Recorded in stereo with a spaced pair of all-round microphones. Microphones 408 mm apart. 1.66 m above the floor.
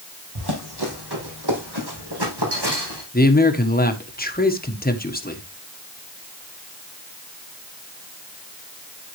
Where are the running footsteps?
65° right (ahead or behind), 4 m; by 3.0 s 70° right (ahead or behind), 5.5 m.